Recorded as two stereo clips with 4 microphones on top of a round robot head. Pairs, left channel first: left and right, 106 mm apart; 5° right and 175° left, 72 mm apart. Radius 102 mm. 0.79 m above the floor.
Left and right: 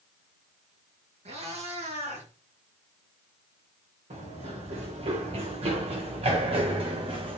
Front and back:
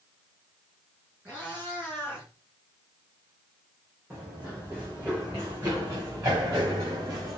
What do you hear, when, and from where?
1.2 s a cat meowing: 110° right, 5 m; by 2.3 s 105° right, 6 m
4.1 s running footsteps: 110° right, 4.5 m; by 7.4 s 130° right, 3 m